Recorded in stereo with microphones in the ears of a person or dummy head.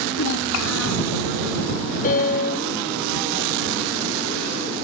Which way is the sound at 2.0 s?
35° left (ahead or behind).